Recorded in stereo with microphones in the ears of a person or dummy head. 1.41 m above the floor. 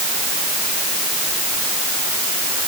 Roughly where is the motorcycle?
No motorcycle in this recording.